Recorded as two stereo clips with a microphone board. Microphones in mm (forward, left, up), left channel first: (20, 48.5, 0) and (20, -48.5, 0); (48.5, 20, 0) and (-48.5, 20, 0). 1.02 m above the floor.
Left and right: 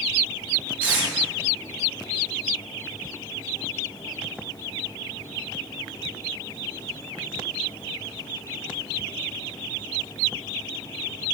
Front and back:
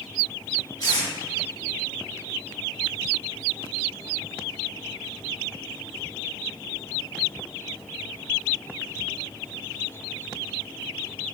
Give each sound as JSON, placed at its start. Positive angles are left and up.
{"t": 0.8, "sound": "tape being pulled", "azimuth_deg": -25, "distance_m": 0.9}